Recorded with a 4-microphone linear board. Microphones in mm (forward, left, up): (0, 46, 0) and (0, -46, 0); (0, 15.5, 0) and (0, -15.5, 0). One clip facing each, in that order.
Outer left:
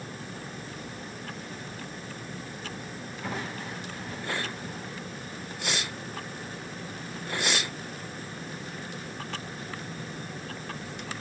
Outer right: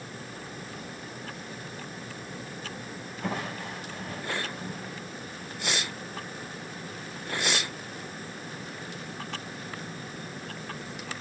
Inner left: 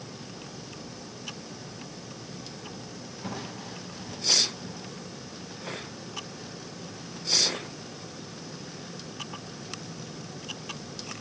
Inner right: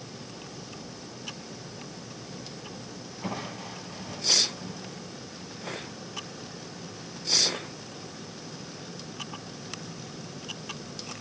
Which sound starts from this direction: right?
Crushing, at 3.2 s.